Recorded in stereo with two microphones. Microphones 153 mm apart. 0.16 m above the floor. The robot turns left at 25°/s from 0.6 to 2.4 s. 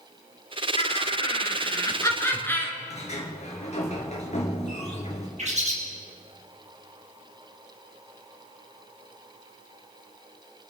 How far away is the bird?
About 4 m.